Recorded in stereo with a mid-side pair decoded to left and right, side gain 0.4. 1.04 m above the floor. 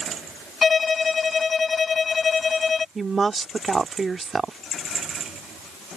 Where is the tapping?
I don't hear tapping.